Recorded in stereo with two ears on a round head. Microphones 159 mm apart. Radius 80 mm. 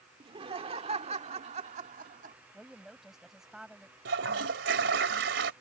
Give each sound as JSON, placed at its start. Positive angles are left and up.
{"t": 0.2, "sound": "laughter", "side_deg": -30}
{"t": 2.5, "sound": "a woman speaking", "side_deg": 0}
{"t": 4.0, "sound": "a toilet flushing", "side_deg": -70}